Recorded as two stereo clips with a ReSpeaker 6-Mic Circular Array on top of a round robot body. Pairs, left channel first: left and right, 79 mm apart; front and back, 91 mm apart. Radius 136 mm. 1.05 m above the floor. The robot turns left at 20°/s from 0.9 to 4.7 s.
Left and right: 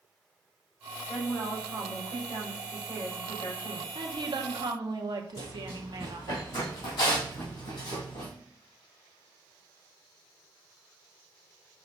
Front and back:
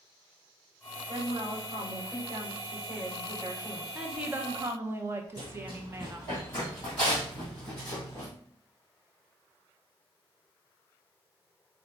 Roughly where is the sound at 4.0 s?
Right.